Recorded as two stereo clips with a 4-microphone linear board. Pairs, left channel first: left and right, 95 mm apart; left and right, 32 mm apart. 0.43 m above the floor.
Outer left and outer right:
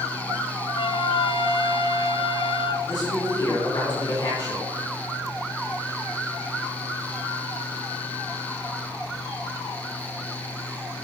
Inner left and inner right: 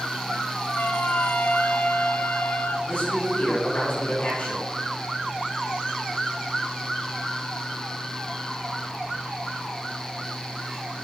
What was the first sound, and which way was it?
A trumpet, 60° left (ahead or behind).